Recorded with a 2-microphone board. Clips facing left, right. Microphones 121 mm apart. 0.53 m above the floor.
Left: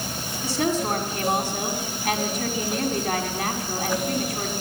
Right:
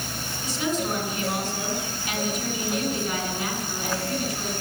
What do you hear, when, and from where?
0.4 s a woman speaking: 75° left (ahead or behind), 5.5 m